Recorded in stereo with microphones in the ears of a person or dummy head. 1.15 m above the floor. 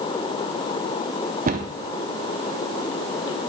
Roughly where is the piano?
No piano in this recording.